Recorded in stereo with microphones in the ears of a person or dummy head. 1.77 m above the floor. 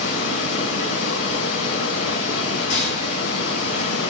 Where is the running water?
75° left (ahead or behind), 5.5 m.